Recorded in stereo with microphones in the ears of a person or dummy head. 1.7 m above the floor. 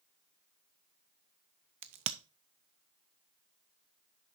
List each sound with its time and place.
1.8 s a crack: 35° right (ahead or behind), 0.5 m